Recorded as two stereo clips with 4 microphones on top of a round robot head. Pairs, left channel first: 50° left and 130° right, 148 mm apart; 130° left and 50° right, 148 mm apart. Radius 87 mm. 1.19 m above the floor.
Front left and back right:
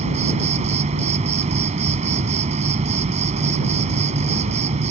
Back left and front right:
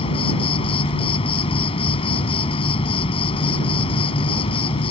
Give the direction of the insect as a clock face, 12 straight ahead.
6 o'clock.